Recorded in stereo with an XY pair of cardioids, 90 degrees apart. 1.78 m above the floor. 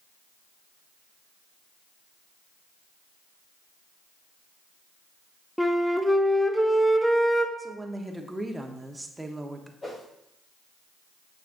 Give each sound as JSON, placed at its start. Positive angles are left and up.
{"t": 5.6, "sound": "a flute", "azimuth_deg": 5, "distance_m": 0.7}
{"t": 7.6, "sound": "a woman speaking", "azimuth_deg": -10, "distance_m": 1.1}
{"t": 9.8, "sound": "a whoosh", "azimuth_deg": 35, "distance_m": 4.0}